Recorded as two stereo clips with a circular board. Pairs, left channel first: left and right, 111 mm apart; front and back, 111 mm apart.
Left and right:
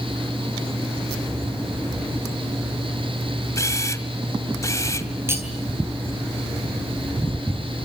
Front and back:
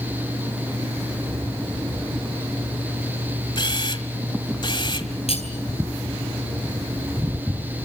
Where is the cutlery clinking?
25° right, 3.5 m.